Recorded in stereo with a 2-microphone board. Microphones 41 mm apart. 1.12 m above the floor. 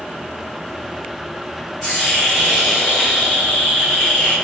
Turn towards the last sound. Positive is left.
turn(degrees=25)  # may be behind; listen again after turning